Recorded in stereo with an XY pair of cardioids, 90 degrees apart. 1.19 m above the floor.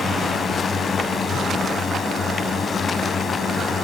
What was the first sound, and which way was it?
A drone, 60° left.